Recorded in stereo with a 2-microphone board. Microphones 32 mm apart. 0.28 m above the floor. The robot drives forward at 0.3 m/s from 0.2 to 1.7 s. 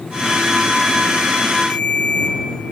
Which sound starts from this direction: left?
A ringtone, at 1.7 s.